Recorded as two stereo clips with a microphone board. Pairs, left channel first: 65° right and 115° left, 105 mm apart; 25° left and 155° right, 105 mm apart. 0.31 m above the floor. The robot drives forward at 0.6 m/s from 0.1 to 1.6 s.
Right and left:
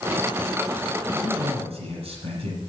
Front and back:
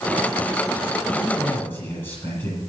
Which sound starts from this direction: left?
A man speaking, at 1.1 s.